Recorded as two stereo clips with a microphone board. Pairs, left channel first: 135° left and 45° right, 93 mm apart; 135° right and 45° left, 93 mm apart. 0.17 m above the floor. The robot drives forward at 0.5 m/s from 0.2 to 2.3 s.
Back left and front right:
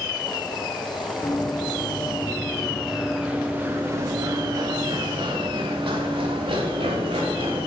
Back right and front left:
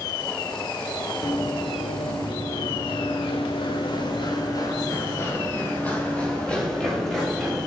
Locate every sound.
1.2 s running footsteps: 155° right, 3 m; by 7.7 s 45° right, 4.5 m